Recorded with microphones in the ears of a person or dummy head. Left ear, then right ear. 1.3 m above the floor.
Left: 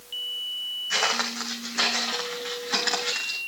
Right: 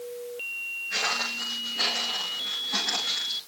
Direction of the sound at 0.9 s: 45° left (ahead or behind).